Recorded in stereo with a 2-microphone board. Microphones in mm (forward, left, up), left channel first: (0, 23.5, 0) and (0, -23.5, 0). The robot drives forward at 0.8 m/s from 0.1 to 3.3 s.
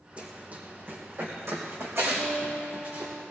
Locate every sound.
0.2 s running footsteps: 25° right (ahead or behind), 3 m; by 3.1 s 80° right, 5.5 m
2.1 s a guitar: 65° right (ahead or behind), 4.5 m; by 3.2 s 55° right (ahead or behind), 5 m